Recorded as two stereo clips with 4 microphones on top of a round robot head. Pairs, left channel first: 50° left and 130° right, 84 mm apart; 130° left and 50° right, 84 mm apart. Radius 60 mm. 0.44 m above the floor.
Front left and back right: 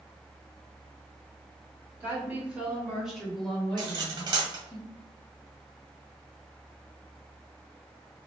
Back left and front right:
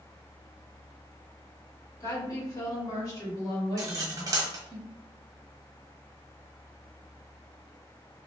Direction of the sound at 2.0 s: 165° left.